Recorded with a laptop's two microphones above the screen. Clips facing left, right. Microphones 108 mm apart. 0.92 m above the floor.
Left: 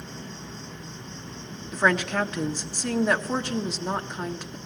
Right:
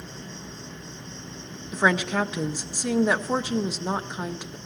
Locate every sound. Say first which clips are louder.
0.0 s an insect: left 1 dB; 20° left (ahead or behind), 9.5 m
1.7 s a woman speaking: right 1 dB; 5° right (ahead or behind), 1.1 m